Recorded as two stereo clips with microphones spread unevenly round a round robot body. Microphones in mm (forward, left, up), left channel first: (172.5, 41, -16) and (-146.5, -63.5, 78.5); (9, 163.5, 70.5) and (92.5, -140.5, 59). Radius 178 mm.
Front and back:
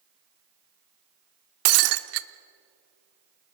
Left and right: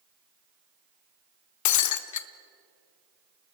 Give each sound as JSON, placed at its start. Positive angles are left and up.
{"t": 1.6, "sound": "breaking glass", "azimuth_deg": 145, "distance_m": 0.9}